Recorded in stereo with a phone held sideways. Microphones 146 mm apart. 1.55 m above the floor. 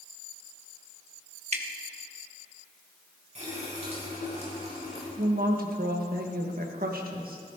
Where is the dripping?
45° right (ahead or behind), 1.2 m.